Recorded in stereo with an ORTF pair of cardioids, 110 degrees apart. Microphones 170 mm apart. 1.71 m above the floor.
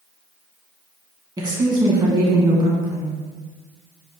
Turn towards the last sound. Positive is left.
turn(degrees=-25)